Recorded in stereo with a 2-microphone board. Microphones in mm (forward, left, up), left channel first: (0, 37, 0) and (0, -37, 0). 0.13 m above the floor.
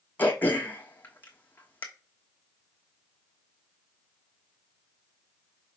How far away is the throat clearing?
About 1.1 m.